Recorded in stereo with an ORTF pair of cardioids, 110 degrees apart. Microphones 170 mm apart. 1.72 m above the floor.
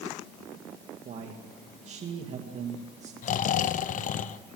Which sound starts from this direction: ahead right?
A man speaking, at 1.1 s.